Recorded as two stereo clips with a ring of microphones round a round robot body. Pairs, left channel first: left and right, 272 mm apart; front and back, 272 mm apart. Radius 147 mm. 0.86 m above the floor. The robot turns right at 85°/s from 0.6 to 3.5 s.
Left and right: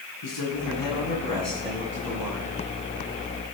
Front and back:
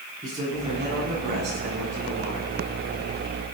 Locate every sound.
0.2 s a man speaking: 105° left, 8 m; by 2.5 s 90° right, 8 m